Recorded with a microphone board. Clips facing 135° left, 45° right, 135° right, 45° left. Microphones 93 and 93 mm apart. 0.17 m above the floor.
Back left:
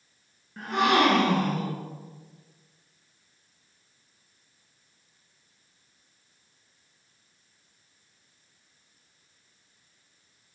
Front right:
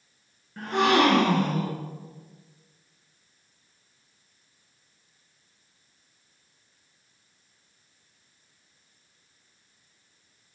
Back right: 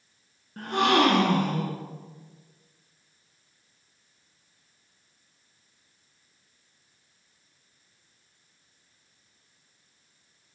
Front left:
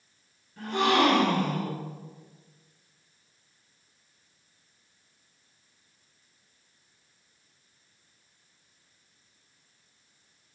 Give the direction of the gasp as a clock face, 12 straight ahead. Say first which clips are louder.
Front right 1 dB, back right 1 dB; 5 o'clock.